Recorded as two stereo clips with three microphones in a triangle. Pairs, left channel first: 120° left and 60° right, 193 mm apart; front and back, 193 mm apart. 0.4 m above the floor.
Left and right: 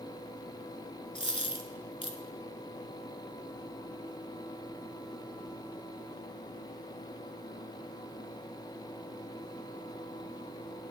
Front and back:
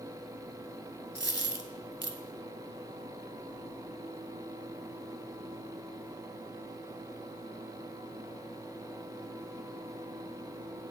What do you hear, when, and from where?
1.1 s a dropped coin: 175° left, 0.6 m